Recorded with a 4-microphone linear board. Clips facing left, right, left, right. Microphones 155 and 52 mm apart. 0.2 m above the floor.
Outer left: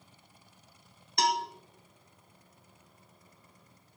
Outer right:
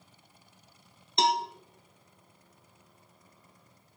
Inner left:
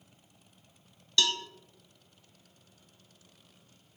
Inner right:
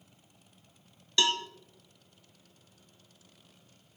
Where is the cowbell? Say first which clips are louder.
Outer right 2 dB, inner right 2 dB; 25° right (ahead or behind), 0.9 m.